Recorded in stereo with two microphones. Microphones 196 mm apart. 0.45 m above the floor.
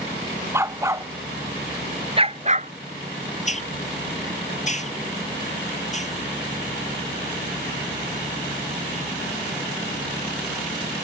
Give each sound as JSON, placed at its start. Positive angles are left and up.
{"t": 0.5, "sound": "a dog barking", "side_deg": -15}
{"t": 3.5, "sound": "a hiss", "side_deg": 40}